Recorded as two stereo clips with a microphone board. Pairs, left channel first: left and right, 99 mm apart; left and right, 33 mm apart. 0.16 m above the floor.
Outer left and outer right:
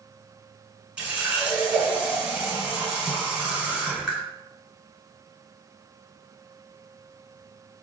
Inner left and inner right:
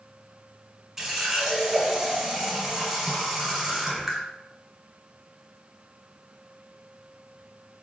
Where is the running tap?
15° right (ahead or behind), 1.2 m.